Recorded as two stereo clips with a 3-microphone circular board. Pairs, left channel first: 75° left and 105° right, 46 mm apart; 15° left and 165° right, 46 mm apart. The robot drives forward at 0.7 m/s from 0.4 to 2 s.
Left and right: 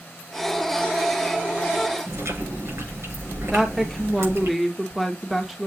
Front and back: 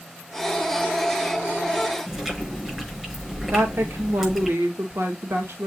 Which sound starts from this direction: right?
Chewing, at 2.1 s.